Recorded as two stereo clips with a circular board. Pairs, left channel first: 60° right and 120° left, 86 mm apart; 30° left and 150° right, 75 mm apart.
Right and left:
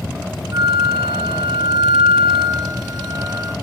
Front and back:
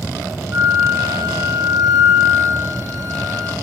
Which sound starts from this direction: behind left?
A flute, at 0.5 s.